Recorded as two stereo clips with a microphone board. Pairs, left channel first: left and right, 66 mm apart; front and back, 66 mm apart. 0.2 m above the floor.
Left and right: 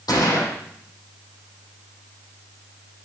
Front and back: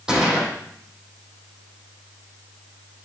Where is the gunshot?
100° left, 4.5 m.